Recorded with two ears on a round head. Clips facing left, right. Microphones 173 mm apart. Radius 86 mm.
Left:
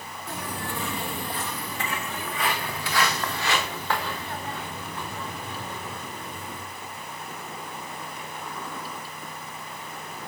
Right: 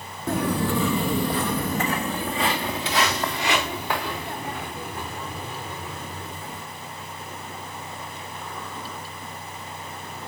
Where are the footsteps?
40° right (ahead or behind), 1.2 m; by 6.6 s 10° right (ahead or behind), 7.5 m.